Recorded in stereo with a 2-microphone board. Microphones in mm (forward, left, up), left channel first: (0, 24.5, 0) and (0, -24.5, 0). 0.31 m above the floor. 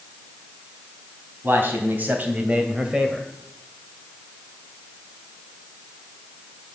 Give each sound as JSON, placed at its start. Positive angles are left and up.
{"t": 1.4, "sound": "a man speaking", "side_deg": -40, "distance_m": 3.0}